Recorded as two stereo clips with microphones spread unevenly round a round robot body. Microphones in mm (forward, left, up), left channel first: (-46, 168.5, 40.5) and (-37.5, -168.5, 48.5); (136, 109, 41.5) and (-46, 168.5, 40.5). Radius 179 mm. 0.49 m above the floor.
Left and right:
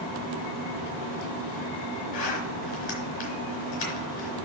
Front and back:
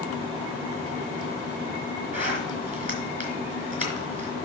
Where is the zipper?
110° left, 4 m.